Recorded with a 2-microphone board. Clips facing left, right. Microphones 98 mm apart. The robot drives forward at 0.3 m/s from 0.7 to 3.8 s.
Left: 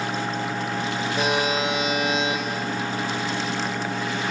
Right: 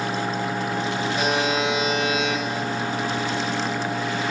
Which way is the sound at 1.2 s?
45° left (ahead or behind).